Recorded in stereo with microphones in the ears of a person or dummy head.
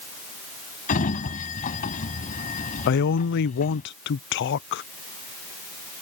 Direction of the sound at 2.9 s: 60° left (ahead or behind).